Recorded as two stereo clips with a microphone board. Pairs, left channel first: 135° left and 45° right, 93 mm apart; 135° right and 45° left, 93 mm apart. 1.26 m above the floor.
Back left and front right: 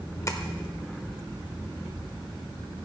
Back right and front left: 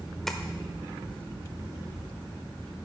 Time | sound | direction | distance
0.3 | tapping | 140° left | 1.1 m